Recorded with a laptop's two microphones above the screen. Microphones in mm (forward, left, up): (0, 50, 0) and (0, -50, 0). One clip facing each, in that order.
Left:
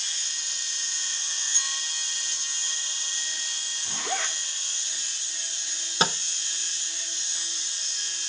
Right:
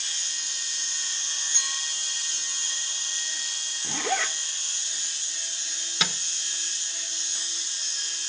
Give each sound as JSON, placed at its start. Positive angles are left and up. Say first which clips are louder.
{"t": 1.5, "sound": "a clink", "louder": "right 1 dB", "side_deg": -60, "distance_m": 8.0}
{"t": 3.8, "sound": "a zipper", "louder": "right 4 dB", "side_deg": -85, "distance_m": 3.0}
{"t": 6.0, "sound": "a microwave", "louder": "left 6 dB", "side_deg": 35, "distance_m": 0.6}